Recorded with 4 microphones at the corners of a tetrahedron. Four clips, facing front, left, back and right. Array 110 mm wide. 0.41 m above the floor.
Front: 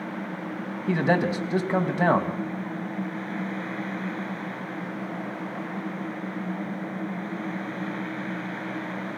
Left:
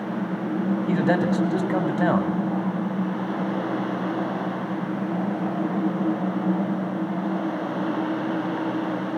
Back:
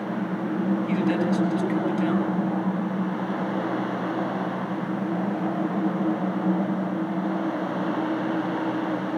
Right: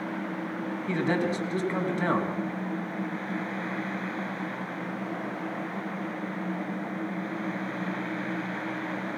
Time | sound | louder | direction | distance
0.9 | a man speaking | left 4 dB, front 5 dB | 30° left | 2.5 m